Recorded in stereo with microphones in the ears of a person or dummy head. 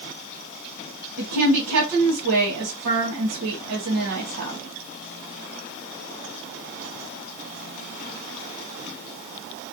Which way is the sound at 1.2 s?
80° right.